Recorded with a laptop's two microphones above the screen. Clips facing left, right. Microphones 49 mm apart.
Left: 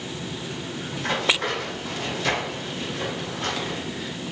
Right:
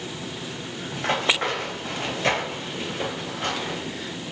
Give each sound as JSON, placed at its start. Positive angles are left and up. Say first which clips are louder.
{"t": 0.9, "sound": "running footsteps", "louder": "right 1 dB", "side_deg": -40, "distance_m": 1.3}